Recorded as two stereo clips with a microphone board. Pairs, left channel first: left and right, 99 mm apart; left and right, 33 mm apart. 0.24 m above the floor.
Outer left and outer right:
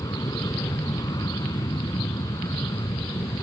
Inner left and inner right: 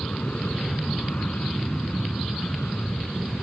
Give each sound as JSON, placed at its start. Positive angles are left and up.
{"t": 0.0, "sound": "an aircraft", "side_deg": 40}